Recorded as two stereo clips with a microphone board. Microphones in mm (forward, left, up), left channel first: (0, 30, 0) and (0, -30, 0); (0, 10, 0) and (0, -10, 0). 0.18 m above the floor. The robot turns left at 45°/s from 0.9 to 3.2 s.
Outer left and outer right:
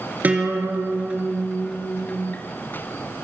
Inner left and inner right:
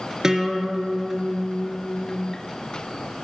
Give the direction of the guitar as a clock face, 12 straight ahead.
5 o'clock.